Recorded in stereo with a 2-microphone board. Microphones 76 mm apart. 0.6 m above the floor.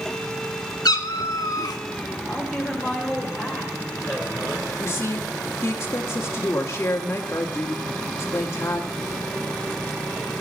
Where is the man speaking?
Centre (ahead or behind), 2.5 m.